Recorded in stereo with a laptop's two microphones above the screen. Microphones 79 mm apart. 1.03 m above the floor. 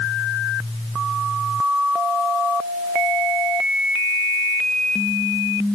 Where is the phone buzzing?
I don't hear a phone buzzing.